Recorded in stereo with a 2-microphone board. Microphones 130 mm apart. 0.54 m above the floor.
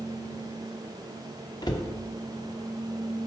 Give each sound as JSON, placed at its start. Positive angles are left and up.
{"t": 1.6, "sound": "a cupboard door", "side_deg": 35, "distance_m": 0.9}